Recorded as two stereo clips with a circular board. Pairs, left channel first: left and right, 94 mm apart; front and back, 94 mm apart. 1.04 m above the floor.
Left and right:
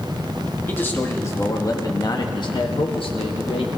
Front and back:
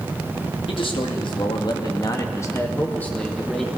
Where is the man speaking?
20° left, 1.8 m; by 3.7 s 90° left, 1.6 m.